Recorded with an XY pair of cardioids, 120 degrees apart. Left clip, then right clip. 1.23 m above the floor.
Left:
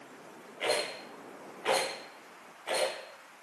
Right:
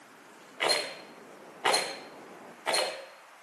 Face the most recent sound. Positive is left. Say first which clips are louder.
# right 3 dB
turn(degrees=-70)